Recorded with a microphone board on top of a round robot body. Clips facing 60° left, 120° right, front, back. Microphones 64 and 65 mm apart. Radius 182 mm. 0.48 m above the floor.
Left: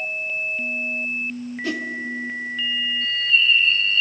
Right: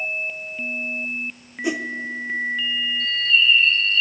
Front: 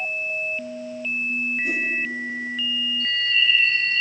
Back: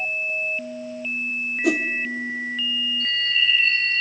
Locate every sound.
1.6 s a whoosh: 165° left, 1.0 m
3.0 s a bird: 140° left, 3 m